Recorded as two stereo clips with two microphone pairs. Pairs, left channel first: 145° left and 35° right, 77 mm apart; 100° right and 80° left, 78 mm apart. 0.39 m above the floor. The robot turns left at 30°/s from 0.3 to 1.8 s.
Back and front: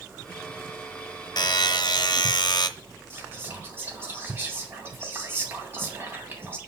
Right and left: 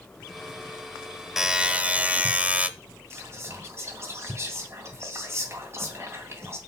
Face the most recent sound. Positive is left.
turn(degrees=25)